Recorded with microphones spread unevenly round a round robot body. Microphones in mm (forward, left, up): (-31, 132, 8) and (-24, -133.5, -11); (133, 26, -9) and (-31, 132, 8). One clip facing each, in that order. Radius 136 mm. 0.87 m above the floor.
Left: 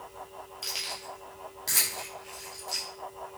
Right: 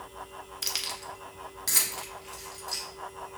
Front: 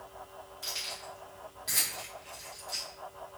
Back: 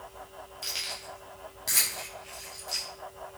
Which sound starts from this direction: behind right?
Keys jangling, at 0.6 s.